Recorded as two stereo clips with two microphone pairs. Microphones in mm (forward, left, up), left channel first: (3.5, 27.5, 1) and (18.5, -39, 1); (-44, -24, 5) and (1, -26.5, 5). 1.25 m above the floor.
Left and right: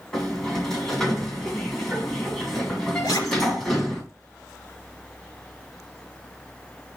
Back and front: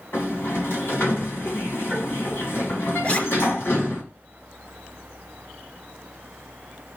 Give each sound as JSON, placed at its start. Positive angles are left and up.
{"t": 0.1, "sound": "a sliding door", "azimuth_deg": -175, "distance_m": 2.0}
{"t": 3.0, "sound": "a zipper", "azimuth_deg": 120, "distance_m": 2.5}